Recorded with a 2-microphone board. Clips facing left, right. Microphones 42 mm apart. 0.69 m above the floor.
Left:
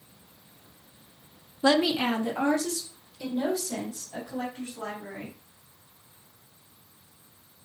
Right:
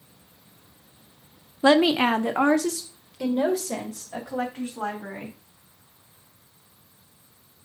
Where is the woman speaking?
20° right (ahead or behind), 0.6 m; by 5.3 s 80° right, 4 m.